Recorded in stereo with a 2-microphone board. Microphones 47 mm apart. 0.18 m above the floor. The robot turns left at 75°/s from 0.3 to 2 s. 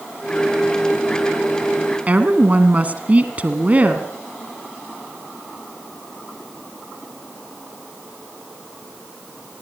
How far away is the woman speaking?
About 2.0 m.